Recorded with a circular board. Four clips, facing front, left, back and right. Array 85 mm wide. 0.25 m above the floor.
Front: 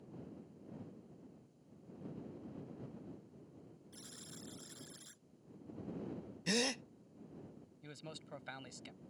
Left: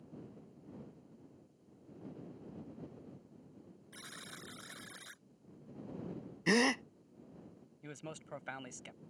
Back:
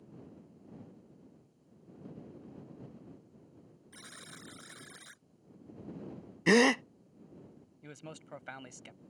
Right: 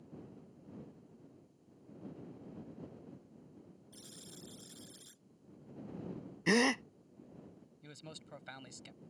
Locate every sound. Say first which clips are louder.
3.9 s a buzzer: left 5 dB, back 5 dB; 125° left
6.5 s a gasp: right 1 dB, back 13 dB; straight behind
7.8 s a man speaking: left 5 dB, back 4 dB; 125° left